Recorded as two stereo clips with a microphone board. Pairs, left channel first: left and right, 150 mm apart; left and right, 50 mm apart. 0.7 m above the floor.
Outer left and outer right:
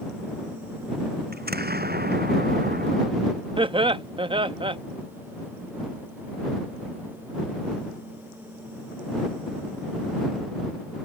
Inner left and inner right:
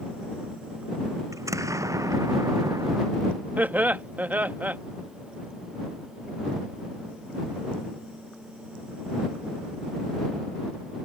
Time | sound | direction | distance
1.3 | an explosion | 85° right | ?
3.6 | laughter | 35° right (ahead or behind) | ?